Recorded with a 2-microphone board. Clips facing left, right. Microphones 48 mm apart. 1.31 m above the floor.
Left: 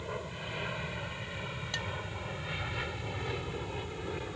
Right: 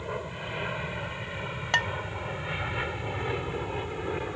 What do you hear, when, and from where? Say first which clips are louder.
0.0 s an aircraft: right 4 dB; 15° right (ahead or behind); by 4.4 s 25° right (ahead or behind)
1.7 s dishes clattering: right 13 dB; 55° right (ahead or behind)